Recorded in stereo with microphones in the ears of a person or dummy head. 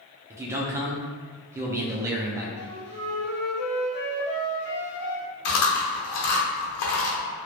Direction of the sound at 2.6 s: 30° left (ahead or behind).